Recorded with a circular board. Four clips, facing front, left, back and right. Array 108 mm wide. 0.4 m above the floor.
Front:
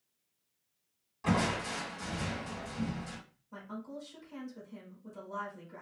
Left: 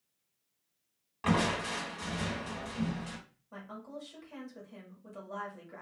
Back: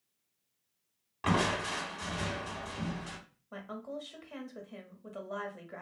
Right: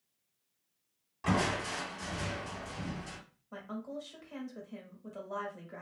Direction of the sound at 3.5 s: 170° right.